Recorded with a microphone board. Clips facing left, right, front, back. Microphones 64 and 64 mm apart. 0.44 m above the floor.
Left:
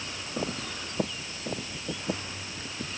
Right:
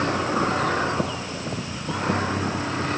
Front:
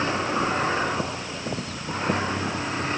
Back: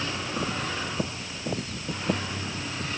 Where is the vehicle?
55° right.